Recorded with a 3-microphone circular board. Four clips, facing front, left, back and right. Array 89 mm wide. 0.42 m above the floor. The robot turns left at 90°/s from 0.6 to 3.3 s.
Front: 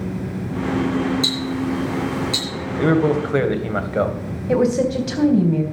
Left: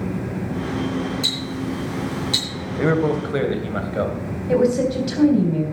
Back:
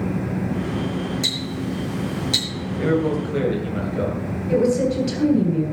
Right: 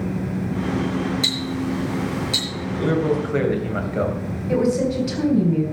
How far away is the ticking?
About 6.5 m.